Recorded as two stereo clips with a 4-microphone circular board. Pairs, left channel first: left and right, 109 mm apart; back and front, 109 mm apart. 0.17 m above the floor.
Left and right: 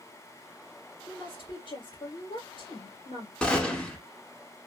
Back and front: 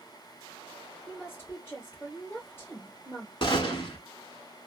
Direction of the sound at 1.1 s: 115° left.